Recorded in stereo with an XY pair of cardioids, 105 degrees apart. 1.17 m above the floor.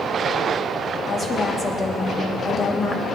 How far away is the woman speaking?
About 2.5 m.